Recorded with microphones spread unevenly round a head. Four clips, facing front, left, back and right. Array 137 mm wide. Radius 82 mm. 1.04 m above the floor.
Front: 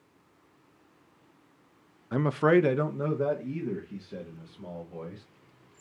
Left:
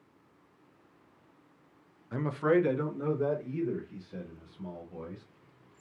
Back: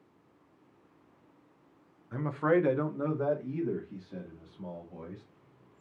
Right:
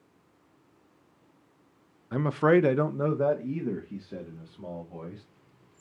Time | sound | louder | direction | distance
2.1 | a man speaking | right 5 dB, front 5 dB | 10° right | 0.6 m